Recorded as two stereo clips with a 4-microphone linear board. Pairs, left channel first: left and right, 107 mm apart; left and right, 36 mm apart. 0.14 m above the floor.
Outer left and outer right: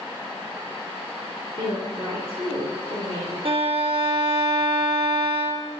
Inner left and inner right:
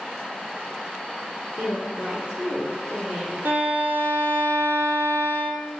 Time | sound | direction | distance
1.6 | a woman speaking | 45° right (ahead or behind) | 1.9 m
3.5 | a violin | 60° right (ahead or behind) | 1.0 m